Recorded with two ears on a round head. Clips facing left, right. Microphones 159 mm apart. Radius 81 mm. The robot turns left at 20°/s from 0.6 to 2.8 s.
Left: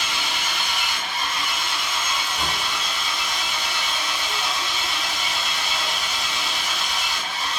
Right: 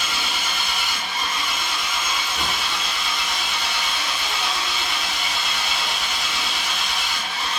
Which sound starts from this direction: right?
An engine running, at 0.0 s.